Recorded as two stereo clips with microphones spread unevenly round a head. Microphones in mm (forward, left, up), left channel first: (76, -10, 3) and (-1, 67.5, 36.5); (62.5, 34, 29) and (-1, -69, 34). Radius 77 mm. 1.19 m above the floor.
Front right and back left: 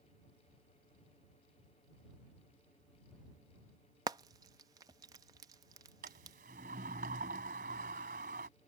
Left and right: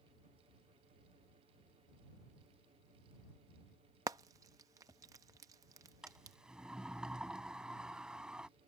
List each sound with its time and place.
4.1 s frying: 175° left
6.0 s a sliding door: 155° left